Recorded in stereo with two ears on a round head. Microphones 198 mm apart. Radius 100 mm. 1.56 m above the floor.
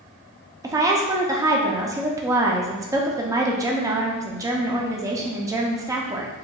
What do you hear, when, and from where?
0.6 s a woman speaking: 15° right (ahead or behind), 0.5 m